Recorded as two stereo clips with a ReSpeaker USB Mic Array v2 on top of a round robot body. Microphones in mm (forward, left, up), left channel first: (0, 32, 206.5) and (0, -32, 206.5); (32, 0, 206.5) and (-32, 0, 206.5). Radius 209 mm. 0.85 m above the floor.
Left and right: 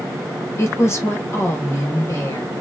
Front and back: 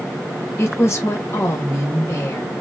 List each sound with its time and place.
0.6 s a woman speaking: 45° left, 2 m